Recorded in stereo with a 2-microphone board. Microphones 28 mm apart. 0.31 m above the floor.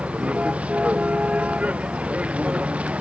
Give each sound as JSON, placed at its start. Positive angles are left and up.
{"t": 0.0, "sound": "a vehicle", "side_deg": -50}